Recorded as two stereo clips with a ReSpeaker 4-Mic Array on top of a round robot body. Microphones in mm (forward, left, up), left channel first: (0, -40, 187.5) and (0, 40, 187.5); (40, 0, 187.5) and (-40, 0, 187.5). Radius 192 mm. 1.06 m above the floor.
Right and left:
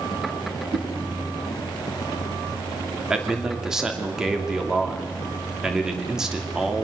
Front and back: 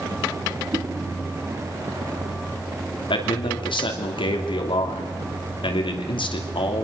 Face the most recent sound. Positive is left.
turn(degrees=5)